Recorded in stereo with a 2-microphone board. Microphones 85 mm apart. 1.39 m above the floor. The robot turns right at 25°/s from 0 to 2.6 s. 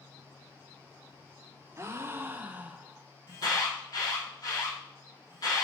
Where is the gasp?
30° right (ahead or behind), 0.5 m; by 3.1 s 20° right (ahead or behind), 0.5 m.